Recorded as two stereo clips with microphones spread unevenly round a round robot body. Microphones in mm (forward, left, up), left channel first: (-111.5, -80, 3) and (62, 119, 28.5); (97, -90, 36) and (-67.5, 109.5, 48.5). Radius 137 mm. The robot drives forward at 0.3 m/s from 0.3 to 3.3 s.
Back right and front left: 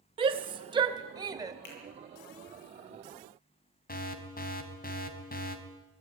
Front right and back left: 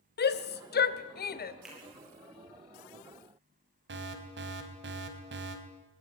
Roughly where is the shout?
Ahead.